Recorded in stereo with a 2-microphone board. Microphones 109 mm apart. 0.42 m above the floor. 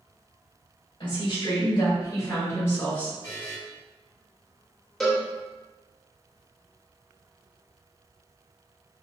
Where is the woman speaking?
50° left (ahead or behind), 1.7 m; by 3.1 s 10° left (ahead or behind), 1.1 m.